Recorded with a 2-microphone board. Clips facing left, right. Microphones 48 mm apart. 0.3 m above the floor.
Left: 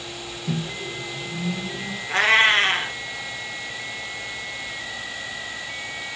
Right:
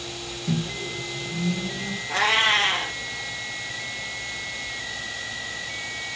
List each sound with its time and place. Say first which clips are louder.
0.5 s a microwave: right 1 dB; 25° left (ahead or behind), 1.7 m
2.1 s a cat meowing: left 4 dB; 30° left (ahead or behind), 2.5 m